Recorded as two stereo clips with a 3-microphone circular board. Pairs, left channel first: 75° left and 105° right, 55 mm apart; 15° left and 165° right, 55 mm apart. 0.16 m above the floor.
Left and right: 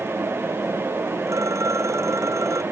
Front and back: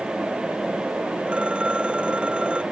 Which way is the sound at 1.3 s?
95° right.